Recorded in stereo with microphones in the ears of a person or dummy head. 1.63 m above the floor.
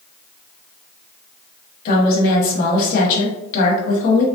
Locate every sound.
1.9 s a woman speaking: 55° left (ahead or behind), 1.2 m